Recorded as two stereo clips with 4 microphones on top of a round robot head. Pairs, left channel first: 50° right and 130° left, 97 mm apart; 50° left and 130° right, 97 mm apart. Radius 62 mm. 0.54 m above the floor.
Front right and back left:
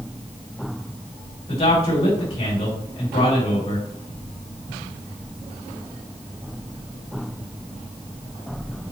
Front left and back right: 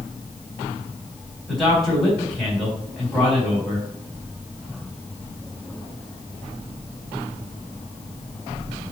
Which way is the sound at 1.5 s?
40° right.